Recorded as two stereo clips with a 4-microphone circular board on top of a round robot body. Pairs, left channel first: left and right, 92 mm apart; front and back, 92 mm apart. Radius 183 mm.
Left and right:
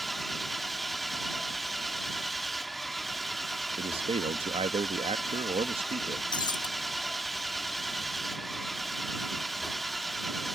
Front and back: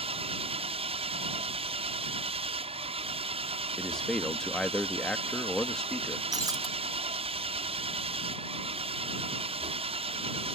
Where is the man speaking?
85° right.